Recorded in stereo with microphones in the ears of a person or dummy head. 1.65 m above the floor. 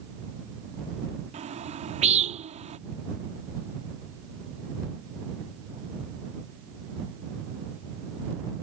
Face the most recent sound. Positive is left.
turn(degrees=-35)  # may be behind; listen again after turning